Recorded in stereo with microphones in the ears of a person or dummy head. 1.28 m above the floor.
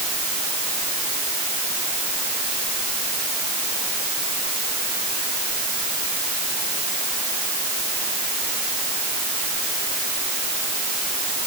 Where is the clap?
I don't hear a clap.